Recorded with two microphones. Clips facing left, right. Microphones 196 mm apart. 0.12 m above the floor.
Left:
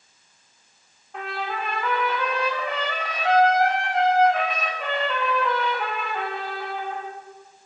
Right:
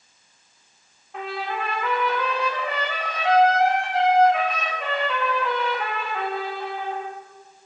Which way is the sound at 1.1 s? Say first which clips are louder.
Right 1 dB; centre (ahead or behind).